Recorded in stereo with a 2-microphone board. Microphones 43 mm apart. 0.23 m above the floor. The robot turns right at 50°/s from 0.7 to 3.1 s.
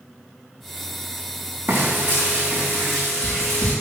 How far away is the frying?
About 4 m.